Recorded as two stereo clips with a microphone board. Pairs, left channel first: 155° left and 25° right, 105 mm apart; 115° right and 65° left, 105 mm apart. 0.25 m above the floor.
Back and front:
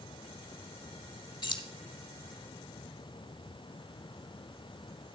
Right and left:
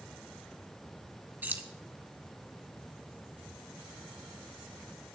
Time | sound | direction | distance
1.4 | keys jangling | 135° left | 1.0 m